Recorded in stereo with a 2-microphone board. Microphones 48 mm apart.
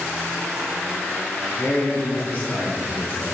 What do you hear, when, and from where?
1.6 s a man speaking: 35° left (ahead or behind), 1.6 m